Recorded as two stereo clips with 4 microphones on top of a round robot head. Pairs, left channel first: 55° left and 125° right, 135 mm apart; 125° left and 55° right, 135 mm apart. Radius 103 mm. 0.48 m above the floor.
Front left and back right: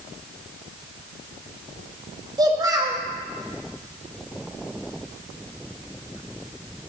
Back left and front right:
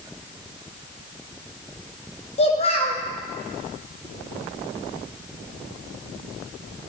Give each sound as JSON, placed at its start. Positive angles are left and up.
{"t": 2.4, "sound": "a child speaking", "azimuth_deg": 170, "distance_m": 1.9}